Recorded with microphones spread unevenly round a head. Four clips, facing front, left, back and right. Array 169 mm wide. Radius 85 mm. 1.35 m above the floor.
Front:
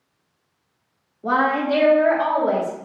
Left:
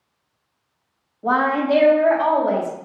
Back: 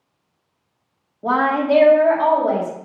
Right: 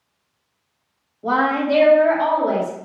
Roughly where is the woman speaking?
Behind.